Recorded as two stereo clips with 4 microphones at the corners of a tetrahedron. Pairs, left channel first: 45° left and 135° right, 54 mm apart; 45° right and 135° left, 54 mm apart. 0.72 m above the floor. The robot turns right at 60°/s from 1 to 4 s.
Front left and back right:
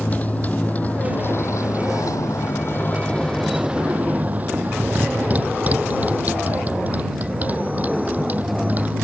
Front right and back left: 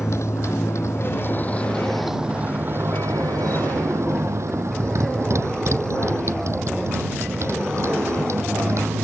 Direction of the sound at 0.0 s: 15° right.